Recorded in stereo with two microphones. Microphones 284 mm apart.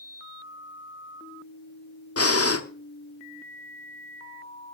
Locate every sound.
2.2 s breathing: 55° left (ahead or behind), 1.0 m